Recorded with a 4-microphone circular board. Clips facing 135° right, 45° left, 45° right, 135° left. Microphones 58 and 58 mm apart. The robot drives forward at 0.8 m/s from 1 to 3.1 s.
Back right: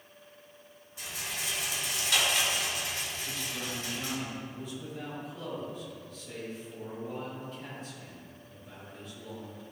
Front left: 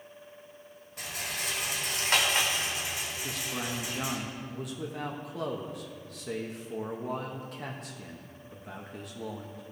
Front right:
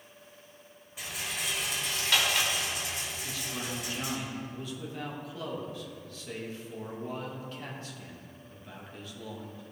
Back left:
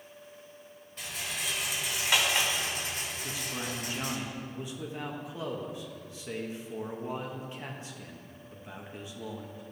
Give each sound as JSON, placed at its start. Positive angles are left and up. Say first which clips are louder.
{"t": 1.0, "sound": "a rattle", "louder": "front left 2 dB, front right 1 dB", "azimuth_deg": 35, "distance_m": 1.8}
{"t": 3.2, "sound": "a man speaking", "louder": "front left 2 dB, back left 1 dB", "azimuth_deg": 65, "distance_m": 1.1}